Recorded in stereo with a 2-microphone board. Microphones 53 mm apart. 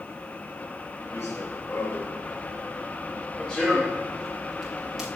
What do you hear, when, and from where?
1.1 s running footsteps: 65° left (ahead or behind), 4.5 m; by 5.1 s 5° right (ahead or behind), 5.5 m